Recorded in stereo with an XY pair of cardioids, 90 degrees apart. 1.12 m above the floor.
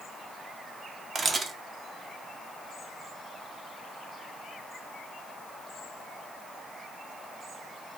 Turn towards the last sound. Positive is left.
turn(degrees=-45)